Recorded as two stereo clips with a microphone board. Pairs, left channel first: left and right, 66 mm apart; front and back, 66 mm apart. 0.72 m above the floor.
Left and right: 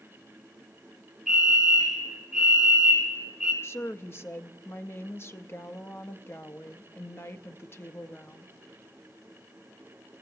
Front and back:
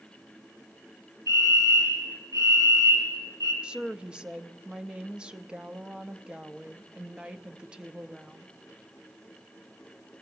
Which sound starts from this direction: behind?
A fire alarm, at 1.3 s.